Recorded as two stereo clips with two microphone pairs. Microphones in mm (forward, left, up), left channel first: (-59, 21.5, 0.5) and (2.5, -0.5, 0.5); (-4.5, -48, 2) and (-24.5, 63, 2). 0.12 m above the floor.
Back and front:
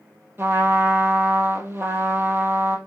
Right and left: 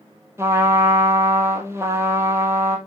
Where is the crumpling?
I don't hear crumpling.